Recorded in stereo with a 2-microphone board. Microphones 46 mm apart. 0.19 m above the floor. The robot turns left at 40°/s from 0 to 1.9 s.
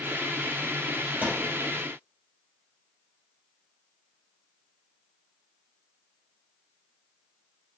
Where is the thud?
30° right (ahead or behind), 3 m; by 1.5 s 15° right (ahead or behind), 3 m.